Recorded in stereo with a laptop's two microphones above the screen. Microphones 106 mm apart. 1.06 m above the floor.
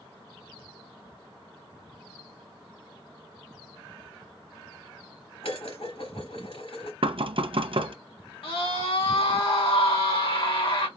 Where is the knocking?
60° right (ahead or behind), 0.6 m.